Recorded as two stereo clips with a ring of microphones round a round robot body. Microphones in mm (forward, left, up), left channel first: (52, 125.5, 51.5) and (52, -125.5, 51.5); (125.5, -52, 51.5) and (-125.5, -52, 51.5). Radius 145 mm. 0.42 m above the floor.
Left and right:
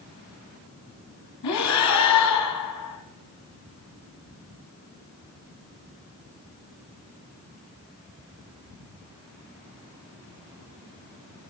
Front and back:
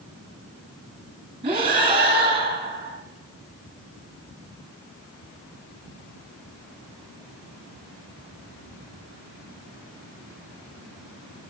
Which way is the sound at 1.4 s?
110° left.